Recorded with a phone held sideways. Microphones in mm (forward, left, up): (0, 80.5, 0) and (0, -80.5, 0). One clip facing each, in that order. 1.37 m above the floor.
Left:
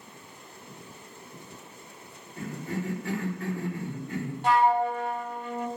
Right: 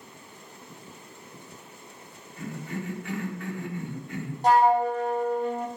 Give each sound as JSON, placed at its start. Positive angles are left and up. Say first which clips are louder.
{"t": 2.4, "sound": "a cough", "louder": "left 2 dB", "side_deg": 35, "distance_m": 4.0}
{"t": 4.4, "sound": "a flute", "louder": "right 3 dB", "side_deg": -40, "distance_m": 1.1}